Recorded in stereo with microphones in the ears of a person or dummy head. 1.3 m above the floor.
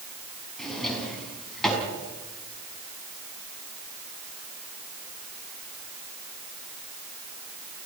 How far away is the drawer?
About 5 m.